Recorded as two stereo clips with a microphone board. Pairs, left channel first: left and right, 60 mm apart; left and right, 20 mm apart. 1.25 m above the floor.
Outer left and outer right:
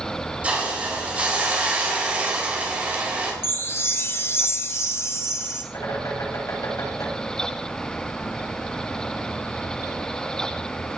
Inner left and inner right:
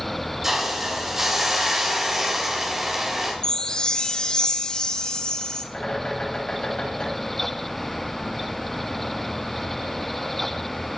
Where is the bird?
60° left (ahead or behind), 6.5 m.